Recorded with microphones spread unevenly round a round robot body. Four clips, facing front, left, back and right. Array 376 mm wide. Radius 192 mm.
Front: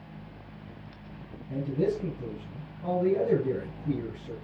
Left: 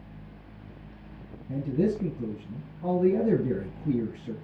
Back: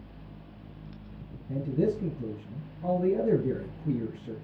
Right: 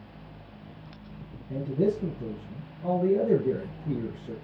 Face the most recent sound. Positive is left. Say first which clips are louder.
# even, even
turn(degrees=110)